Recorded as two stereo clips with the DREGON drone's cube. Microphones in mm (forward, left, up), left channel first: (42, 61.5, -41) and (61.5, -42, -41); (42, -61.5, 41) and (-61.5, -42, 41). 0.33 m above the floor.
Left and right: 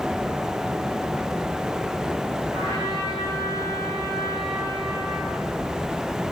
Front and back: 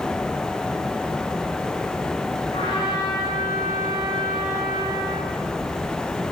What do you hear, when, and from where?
2.5 s a trumpet: 50° right, 6 m